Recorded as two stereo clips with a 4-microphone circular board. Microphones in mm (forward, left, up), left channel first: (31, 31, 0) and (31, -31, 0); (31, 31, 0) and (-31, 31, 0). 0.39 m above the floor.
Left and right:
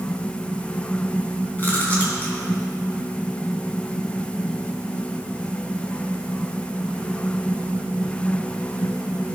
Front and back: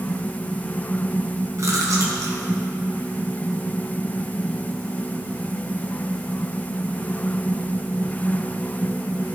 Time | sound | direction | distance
1.6 | chewing | 150° left | 2.5 m